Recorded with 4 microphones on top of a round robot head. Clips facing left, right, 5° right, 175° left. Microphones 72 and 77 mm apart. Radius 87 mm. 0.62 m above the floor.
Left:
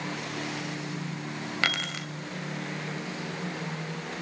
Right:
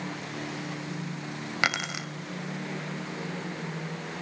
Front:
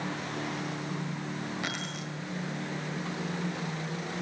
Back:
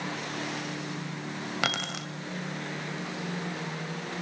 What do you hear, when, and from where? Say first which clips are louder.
1.6 s keys jangling: right 2 dB, back 4 dB; 165° right, 2 m